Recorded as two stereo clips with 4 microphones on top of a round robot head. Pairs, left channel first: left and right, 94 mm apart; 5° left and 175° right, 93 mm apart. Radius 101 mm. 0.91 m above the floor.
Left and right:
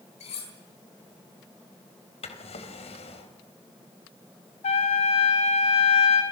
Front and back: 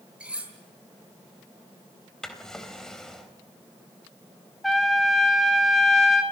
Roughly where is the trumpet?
Left.